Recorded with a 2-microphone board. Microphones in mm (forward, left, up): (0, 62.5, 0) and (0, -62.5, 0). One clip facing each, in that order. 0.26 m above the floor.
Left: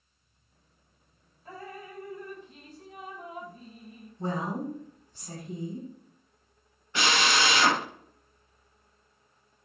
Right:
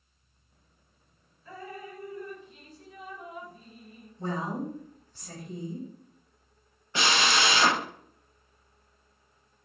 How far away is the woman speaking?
About 1.2 m.